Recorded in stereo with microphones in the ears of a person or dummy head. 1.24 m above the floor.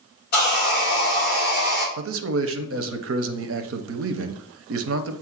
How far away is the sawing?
About 1.1 m.